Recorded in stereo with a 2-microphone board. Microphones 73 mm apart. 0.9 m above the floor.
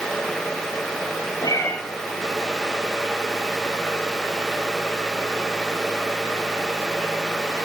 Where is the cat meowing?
70° left (ahead or behind), 5.5 m.